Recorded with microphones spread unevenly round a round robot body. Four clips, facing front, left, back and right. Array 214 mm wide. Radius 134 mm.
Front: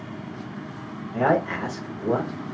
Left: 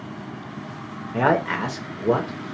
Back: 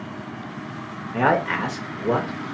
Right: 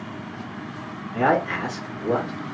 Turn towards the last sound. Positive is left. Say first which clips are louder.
# left 1 dB, back 1 dB
turn(degrees=145)